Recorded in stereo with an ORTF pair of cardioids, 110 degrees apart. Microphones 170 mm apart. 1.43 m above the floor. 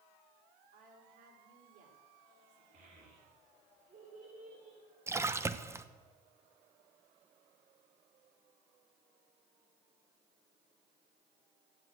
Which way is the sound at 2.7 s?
55° right.